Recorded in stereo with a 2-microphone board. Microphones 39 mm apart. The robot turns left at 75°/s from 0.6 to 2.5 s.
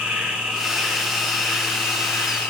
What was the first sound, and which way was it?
An insect, 165° right.